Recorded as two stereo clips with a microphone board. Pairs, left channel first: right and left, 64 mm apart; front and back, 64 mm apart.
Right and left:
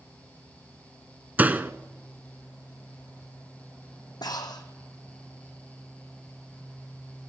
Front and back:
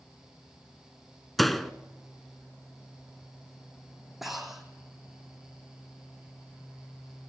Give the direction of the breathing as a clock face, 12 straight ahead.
3 o'clock.